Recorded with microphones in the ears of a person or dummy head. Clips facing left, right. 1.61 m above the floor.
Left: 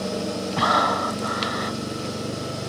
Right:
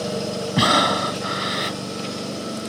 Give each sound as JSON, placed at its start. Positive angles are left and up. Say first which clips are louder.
{"t": 0.6, "sound": "breathing", "louder": "right 4 dB", "side_deg": -40}